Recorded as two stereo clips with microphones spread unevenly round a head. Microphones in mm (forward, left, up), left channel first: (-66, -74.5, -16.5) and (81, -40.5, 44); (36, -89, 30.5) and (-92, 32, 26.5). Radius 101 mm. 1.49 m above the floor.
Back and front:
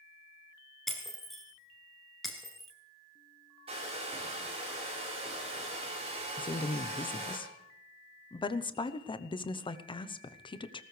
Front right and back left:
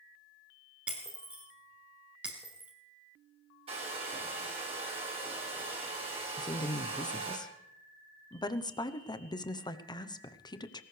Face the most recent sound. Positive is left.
turn(degrees=-115)